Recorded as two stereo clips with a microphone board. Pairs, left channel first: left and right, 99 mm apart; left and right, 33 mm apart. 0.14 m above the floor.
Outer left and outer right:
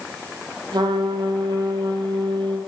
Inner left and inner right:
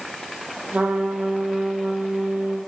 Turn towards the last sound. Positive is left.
turn(degrees=-45)  # may be behind; listen again after turning